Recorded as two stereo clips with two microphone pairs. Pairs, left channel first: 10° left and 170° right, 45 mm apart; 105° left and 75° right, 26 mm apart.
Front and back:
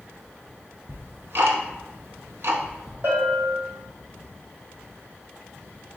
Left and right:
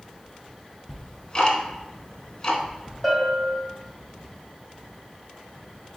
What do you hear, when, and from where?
0.9 s ticking: 160° left, 0.7 m
3.0 s a bell: 165° right, 2 m